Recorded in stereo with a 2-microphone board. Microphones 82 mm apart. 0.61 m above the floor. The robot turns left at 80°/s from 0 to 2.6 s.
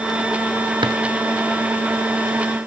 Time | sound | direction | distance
0.8 | a drawer | 70° right (ahead or behind) | 1.0 m